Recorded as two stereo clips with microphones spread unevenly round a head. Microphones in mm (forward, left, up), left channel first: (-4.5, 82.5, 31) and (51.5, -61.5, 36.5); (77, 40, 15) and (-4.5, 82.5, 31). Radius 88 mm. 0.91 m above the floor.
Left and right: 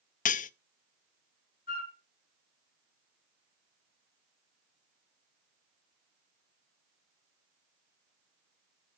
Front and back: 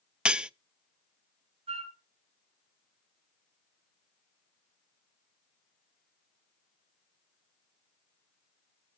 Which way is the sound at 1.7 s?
155° left.